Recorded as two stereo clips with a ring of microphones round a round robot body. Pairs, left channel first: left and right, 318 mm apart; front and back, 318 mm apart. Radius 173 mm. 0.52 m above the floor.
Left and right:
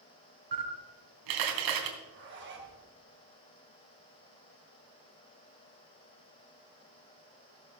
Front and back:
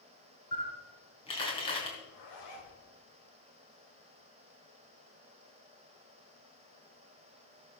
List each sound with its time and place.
0.5 s a camera shutter: 75° right, 3 m
2.0 s a zipper: 35° right, 4 m